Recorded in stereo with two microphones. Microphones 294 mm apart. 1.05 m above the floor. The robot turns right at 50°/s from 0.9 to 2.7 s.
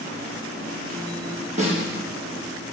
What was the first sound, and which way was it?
A snare drum, 25° right (ahead or behind).